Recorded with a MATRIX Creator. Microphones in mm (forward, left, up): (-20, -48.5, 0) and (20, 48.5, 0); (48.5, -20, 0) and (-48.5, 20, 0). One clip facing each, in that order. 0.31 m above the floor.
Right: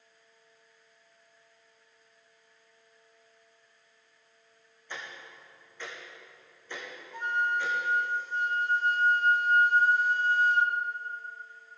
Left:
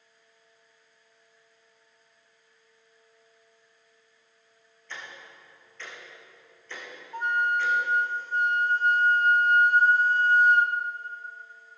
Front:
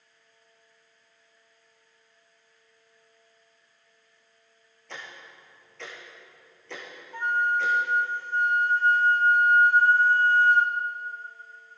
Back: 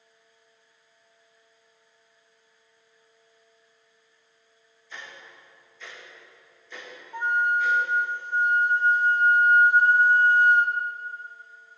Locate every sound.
4.9 s ticking: 35° right, 4 m
7.1 s a flute: 90° left, 1.0 m